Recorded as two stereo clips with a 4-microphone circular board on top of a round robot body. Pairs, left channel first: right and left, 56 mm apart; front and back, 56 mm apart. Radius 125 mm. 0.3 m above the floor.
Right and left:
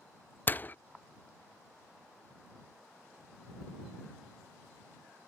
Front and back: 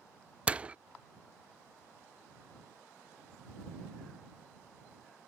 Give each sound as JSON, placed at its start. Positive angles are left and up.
{"t": 0.5, "sound": "a door slam", "azimuth_deg": -125}